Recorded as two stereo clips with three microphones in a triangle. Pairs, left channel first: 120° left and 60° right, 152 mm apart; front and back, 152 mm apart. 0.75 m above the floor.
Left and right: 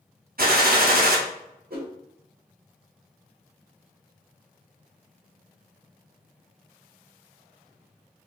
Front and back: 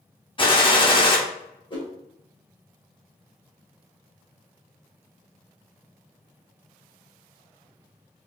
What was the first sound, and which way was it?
A gunshot, 55° right.